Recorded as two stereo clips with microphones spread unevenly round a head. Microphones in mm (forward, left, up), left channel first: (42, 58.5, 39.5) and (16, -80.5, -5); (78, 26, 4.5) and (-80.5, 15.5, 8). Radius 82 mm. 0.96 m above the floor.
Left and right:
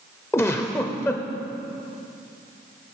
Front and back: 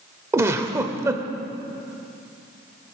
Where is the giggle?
120° left, 0.8 m.